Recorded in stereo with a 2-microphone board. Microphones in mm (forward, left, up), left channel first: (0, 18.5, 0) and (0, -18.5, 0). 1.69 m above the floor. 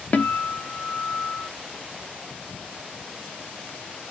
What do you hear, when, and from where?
0.1 s a guitar: 45° left (ahead or behind), 0.8 m